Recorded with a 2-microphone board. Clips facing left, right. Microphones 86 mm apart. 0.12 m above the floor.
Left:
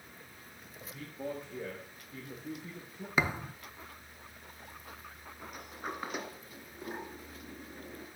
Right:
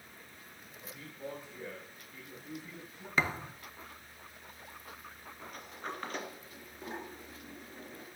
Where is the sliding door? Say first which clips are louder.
Left 1 dB; 10° left (ahead or behind), 2 m.